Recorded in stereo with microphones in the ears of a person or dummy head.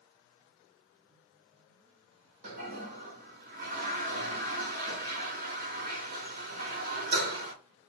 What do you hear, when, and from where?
2.4 s a toilet flushing: 55° right (ahead or behind), 1.5 m